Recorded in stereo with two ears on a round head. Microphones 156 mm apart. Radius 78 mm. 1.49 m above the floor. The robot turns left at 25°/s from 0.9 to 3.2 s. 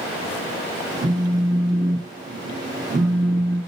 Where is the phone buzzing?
100° right, 3 m; by 3.6 s 155° right, 3 m.